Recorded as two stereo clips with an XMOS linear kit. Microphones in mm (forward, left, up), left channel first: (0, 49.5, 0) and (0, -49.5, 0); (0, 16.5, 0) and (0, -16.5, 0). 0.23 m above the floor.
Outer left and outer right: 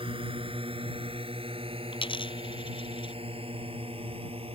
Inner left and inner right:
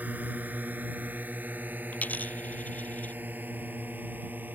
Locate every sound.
0.0 s a drone: 65° right (ahead or behind); by 4.6 s 75° right (ahead or behind)
1.9 s a dropped coin: 65° left (ahead or behind)